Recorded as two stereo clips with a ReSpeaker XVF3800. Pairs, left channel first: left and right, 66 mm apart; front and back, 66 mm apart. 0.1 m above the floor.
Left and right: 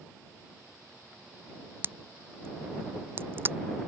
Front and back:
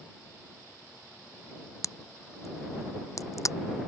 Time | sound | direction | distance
1.8 | a crack | 35° right | ?